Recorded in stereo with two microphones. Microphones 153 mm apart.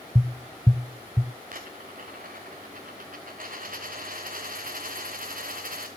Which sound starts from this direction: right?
A dropped coin, at 1.5 s.